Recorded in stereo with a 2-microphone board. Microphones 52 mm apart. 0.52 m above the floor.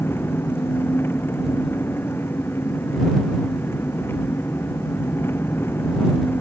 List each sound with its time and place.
0.0 s an engine running: 45° left (ahead or behind)